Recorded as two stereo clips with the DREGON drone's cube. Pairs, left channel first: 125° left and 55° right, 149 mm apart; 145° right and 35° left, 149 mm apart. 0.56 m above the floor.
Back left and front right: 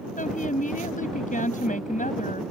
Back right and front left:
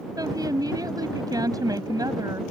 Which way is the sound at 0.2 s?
100° left.